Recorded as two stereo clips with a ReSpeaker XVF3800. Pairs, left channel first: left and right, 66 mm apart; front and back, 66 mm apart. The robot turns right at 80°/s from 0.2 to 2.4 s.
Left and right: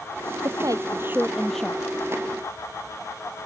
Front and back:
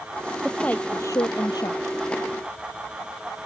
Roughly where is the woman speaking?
Right.